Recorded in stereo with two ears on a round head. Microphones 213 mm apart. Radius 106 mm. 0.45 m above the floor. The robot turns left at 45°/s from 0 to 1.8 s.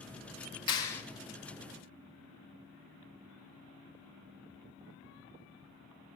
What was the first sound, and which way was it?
A clap, 20° left (ahead or behind).